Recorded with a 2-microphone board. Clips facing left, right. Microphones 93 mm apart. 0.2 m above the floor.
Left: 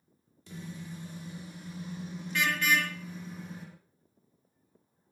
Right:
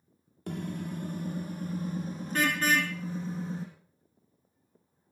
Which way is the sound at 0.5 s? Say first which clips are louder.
Right 7 dB; 60° right (ahead or behind).